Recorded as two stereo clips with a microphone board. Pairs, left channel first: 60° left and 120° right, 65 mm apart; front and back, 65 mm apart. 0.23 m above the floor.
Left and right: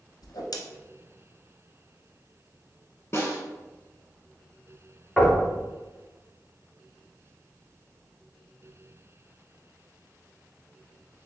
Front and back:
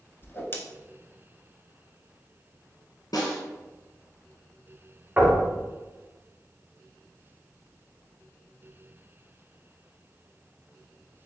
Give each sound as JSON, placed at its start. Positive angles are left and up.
{"t": 0.2, "sound": "a whoosh", "azimuth_deg": 55, "distance_m": 0.7}
{"t": 3.1, "sound": "a snare drum", "azimuth_deg": 10, "distance_m": 1.3}
{"t": 5.2, "sound": "knocking", "azimuth_deg": 145, "distance_m": 1.5}